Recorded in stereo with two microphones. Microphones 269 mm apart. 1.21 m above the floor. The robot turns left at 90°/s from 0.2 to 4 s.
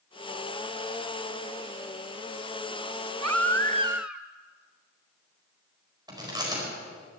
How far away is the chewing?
About 4.5 m.